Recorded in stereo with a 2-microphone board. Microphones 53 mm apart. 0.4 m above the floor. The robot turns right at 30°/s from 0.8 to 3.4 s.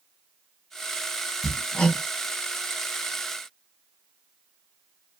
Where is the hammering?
5° left (ahead or behind), 1.2 m; by 2.0 s 20° left (ahead or behind), 1.2 m.